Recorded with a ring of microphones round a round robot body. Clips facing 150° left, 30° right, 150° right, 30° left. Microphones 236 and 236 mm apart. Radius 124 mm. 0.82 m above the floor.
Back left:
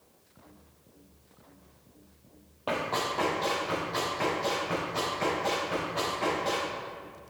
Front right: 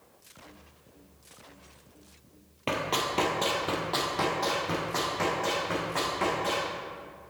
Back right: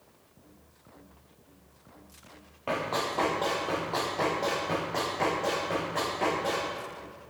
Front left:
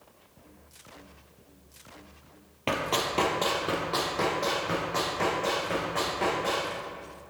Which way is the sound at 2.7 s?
15° left.